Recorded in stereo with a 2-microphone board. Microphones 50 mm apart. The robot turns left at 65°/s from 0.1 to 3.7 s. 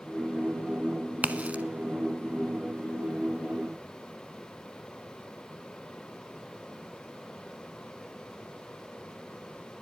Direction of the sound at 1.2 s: 30° right (ahead or behind).